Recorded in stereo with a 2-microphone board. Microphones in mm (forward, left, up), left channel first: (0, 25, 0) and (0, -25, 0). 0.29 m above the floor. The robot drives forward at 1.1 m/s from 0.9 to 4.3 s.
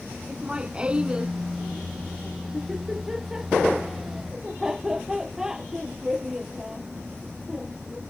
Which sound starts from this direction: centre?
Laughter, at 0.3 s.